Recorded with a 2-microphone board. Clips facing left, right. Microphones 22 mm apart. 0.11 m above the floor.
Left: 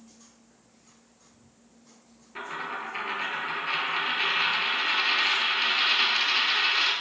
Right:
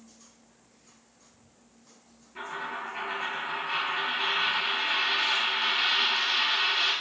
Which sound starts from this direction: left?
A dropped coin, at 2.4 s.